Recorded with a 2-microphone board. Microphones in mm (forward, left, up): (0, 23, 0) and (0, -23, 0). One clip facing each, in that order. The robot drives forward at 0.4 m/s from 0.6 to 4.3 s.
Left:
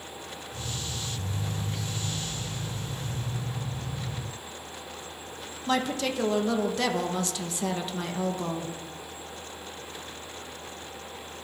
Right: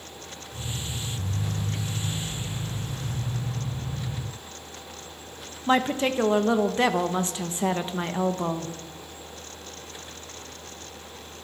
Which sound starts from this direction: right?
A woman speaking, at 5.7 s.